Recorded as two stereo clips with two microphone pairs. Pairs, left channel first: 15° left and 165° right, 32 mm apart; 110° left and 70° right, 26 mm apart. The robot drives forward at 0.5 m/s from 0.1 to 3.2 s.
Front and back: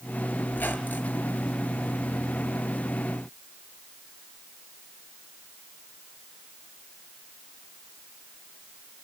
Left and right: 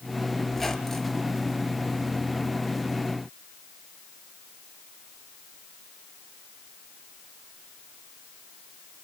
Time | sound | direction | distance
0.5 | a squeak | 30° left | 3.5 m